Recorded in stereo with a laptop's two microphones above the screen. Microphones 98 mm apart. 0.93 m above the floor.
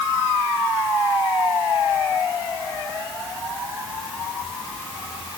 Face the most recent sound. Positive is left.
No sound to turn to.